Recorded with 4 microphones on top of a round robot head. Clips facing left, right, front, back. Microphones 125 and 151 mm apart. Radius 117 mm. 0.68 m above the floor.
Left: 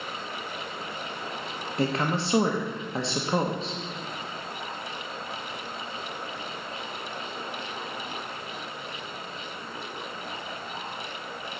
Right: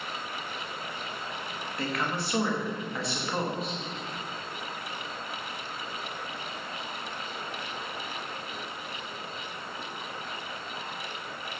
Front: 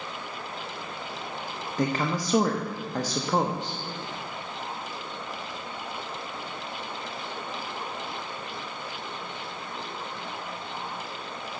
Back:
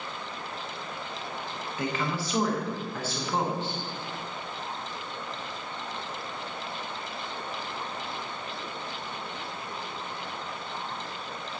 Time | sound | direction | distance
1.8 | a woman speaking | 35° left | 0.9 m